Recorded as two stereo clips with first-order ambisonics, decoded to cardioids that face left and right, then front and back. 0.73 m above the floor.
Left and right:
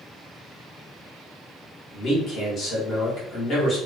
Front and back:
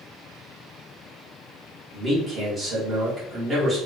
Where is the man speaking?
115° left, 1.2 m.